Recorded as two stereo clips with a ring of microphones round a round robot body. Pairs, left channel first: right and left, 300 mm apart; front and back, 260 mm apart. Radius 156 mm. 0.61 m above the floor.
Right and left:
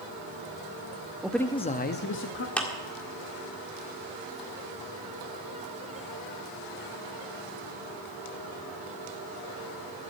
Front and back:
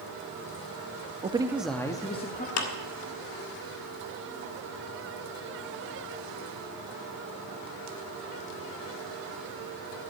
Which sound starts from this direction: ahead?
A clap, at 2.6 s.